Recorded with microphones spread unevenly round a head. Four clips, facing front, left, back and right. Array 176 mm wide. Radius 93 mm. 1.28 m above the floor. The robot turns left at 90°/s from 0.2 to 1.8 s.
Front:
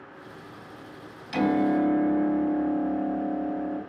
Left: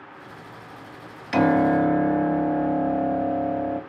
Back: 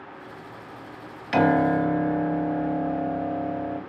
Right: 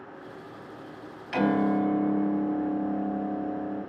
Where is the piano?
150° left, 2.5 m; by 3.8 s 105° left, 2.5 m.